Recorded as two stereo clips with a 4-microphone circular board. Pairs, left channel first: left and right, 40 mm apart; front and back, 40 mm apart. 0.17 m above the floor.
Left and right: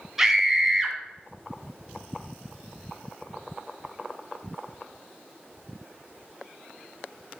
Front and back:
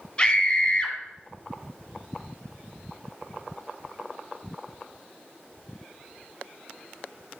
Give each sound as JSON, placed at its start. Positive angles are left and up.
{"t": 0.2, "sound": "a scream", "azimuth_deg": -20, "distance_m": 1.3}